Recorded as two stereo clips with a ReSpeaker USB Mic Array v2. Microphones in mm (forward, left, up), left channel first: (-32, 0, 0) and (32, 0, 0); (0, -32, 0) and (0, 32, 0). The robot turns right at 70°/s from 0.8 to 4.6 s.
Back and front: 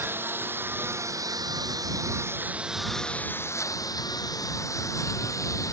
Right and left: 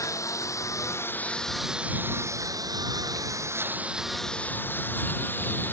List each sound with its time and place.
0.0 s a lawn mower: 55° right; by 5.7 s 150° right